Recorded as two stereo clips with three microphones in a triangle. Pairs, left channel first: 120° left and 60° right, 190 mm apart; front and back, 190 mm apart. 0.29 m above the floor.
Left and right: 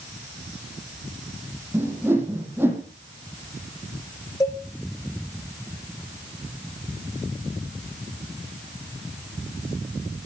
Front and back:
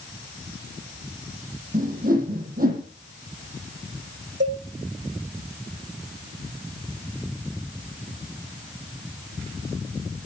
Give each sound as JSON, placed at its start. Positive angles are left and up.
{"t": 1.7, "sound": "a whoosh", "azimuth_deg": -140, "distance_m": 6.0}
{"t": 4.4, "sound": "a cowbell", "azimuth_deg": -165, "distance_m": 4.5}